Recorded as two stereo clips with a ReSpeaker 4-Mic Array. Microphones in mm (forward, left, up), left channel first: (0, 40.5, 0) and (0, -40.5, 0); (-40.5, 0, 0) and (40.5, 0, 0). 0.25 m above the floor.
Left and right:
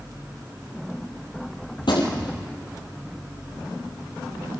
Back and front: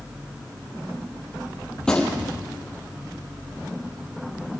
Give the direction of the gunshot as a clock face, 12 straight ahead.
9 o'clock.